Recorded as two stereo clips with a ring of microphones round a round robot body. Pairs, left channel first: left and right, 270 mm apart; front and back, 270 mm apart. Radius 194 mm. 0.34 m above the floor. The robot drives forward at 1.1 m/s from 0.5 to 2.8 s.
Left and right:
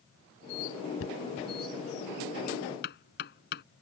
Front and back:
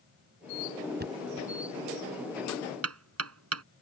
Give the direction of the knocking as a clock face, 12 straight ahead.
8 o'clock.